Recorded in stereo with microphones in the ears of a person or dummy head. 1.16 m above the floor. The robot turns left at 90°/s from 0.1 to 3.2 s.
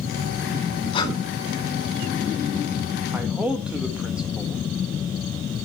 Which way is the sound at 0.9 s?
40° left (ahead or behind).